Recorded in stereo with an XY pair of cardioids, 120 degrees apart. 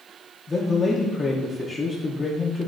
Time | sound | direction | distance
0.5 | a man speaking | 20° left | 0.6 m